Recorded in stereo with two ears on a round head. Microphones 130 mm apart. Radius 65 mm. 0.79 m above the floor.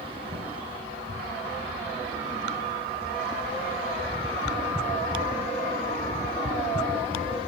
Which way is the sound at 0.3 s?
30° right (ahead or behind).